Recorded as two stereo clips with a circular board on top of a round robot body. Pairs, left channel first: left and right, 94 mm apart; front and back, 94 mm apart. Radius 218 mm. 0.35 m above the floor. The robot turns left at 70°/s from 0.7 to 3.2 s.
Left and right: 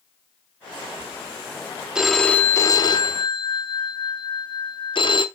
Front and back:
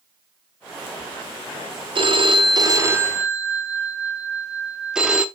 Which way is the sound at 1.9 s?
175° right.